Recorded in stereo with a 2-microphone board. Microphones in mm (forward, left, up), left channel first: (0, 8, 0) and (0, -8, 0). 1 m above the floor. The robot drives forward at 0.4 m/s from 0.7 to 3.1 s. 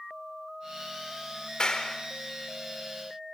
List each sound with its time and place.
1.6 s a clap: 50° left (ahead or behind), 3.5 m